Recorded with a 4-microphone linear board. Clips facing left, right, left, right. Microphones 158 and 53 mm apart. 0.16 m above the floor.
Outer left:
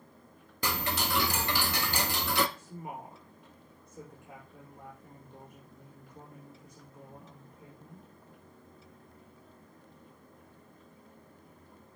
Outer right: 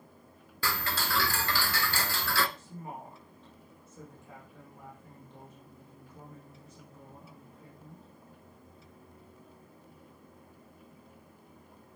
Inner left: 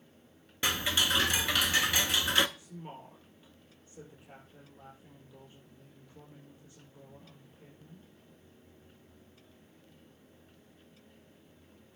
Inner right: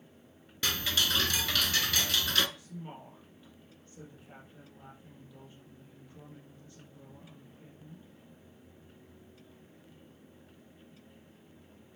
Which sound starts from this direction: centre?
A woman speaking, at 2.6 s.